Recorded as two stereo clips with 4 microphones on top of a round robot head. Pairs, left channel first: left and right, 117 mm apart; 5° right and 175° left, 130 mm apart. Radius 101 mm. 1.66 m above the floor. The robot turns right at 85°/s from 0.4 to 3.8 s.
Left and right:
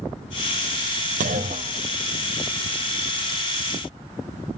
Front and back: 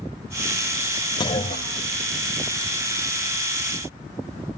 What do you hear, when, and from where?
1.2 s a clunk: 70° right, 0.6 m; by 2.4 s 35° left, 0.6 m